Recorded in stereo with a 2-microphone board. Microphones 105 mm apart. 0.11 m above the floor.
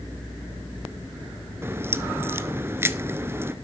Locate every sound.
1.6 s a crack: 25° right (ahead or behind), 0.8 m